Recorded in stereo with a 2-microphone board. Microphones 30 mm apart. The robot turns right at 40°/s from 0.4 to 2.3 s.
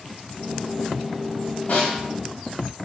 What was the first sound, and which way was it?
A snare drum, 60° left (ahead or behind).